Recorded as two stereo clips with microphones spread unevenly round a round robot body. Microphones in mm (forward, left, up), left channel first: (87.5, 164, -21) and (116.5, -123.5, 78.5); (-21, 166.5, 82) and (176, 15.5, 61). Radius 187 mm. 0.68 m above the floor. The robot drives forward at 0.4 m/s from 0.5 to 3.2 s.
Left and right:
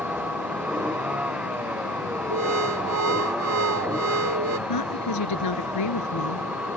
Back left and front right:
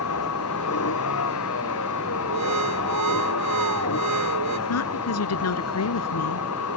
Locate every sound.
0.0 s a vehicle: 170° right
2.3 s an alarm: 50° right
4.7 s a woman speaking: 125° left